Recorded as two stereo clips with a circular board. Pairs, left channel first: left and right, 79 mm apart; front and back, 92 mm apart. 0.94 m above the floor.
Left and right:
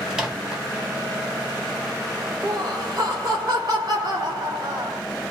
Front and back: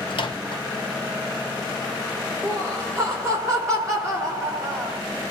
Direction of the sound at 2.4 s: 125° right.